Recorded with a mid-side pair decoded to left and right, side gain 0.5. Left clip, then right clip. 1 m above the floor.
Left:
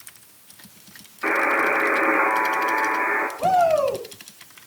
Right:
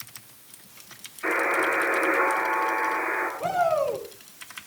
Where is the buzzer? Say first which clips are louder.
Left 4 dB; 50° left, 9.5 m.